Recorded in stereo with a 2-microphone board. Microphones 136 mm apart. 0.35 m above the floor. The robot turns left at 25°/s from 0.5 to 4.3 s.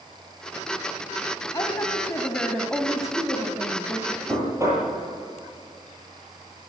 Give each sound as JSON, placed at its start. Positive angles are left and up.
{"t": 1.5, "sound": "a woman speaking", "azimuth_deg": 30, "distance_m": 2.0}
{"t": 4.3, "sound": "knocking", "side_deg": -25, "distance_m": 9.5}